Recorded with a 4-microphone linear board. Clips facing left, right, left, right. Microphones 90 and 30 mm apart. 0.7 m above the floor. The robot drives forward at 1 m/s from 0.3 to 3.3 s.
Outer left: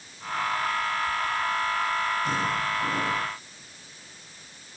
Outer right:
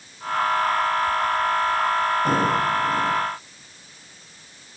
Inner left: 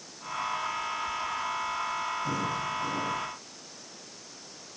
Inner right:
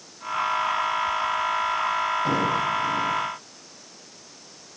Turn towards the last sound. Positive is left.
No sound to turn to.